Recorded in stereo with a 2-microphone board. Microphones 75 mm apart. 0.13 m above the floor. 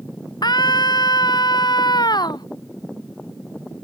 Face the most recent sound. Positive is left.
turn(degrees=65)  # may be behind; listen again after turning